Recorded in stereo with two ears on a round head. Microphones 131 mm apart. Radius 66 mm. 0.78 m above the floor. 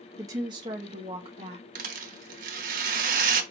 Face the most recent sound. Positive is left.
turn(degrees=-60)  # may be behind; listen again after turning